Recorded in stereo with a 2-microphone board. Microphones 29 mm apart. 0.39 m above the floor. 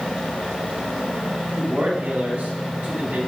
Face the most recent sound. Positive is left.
turn(degrees=-60)  # may be behind; listen again after turning